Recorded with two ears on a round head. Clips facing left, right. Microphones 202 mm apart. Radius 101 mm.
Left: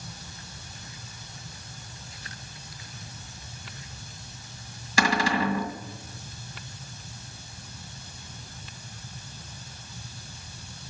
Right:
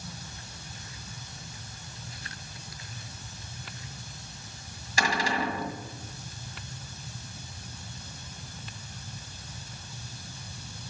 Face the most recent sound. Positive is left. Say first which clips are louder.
# left 4 dB
turn(degrees=55)  # may be behind; listen again after turning